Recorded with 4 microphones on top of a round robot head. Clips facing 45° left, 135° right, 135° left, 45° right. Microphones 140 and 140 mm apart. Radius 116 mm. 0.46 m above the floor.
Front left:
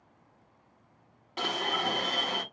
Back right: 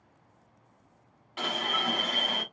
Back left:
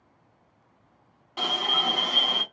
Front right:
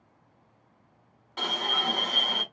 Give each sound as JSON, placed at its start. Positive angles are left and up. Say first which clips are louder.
{"t": 1.4, "sound": "an alarm", "louder": "front left 1 dB, back left 2 dB", "azimuth_deg": 60, "distance_m": 1.9}